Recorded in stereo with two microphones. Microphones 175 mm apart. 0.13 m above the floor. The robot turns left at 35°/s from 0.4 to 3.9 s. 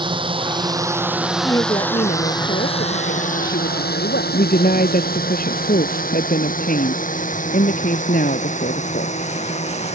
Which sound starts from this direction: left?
A woman speaking, at 4.3 s.